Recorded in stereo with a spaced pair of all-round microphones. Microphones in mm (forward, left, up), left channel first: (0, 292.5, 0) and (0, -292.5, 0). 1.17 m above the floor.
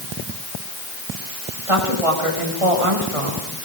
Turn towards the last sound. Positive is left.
turn(degrees=-75)  # may be behind; listen again after turning